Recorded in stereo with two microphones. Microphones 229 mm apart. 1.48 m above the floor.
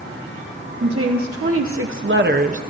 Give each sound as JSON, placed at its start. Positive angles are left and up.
{"t": 0.8, "sound": "a woman speaking", "side_deg": -85, "distance_m": 1.3}